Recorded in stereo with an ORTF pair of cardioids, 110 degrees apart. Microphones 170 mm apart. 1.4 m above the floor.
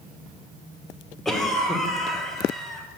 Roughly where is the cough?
Ahead.